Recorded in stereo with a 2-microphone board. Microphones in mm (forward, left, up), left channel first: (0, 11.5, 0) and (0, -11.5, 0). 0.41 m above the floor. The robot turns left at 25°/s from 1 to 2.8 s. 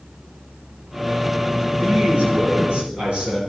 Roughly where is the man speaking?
Right.